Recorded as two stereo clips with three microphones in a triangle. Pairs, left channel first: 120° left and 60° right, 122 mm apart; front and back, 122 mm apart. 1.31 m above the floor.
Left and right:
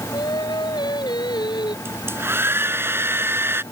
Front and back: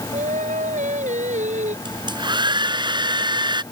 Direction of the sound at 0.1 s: 175° left.